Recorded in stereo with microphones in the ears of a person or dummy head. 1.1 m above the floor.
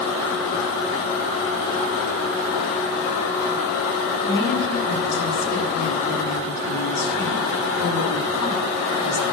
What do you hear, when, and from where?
4.2 s a woman speaking: 75° left (ahead or behind), 9 m